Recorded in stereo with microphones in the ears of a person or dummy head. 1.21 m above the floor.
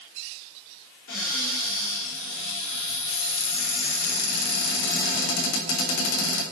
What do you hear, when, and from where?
1.1 s a cupboard door: 70° left (ahead or behind), 3.5 m